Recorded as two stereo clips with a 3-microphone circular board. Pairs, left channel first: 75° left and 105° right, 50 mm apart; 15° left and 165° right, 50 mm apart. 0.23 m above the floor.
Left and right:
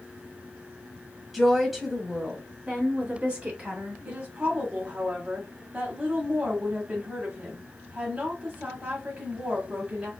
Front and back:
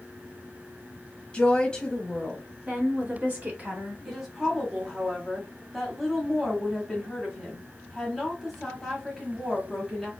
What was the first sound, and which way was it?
A woman speaking, 30° right.